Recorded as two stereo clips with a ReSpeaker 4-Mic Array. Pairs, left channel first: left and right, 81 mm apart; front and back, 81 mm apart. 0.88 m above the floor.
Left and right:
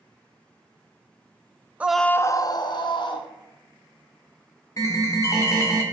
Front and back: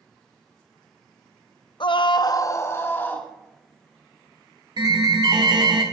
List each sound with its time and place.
1.8 s a scream: 20° right, 0.6 m; by 3.3 s 70° left, 1.8 m
4.8 s an alarm: 140° left, 1.8 m